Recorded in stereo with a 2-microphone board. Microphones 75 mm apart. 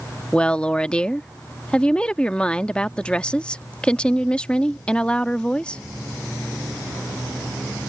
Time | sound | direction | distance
0.3 | a woman speaking | 15° left (ahead or behind) | ?